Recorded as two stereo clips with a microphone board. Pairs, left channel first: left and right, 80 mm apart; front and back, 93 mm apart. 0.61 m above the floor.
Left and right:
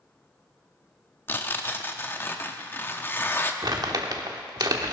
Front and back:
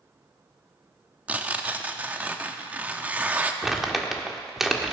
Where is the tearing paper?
120° left, 0.8 m.